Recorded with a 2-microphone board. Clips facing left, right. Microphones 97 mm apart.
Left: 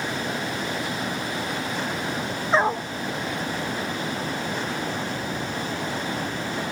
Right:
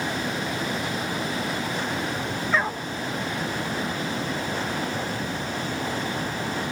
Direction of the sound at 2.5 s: 30° left (ahead or behind).